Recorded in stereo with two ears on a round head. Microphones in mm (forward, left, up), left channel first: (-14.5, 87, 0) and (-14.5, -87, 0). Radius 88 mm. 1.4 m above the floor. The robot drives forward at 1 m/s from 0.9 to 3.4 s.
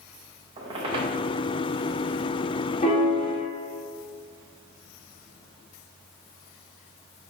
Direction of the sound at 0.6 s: 25° right (ahead or behind).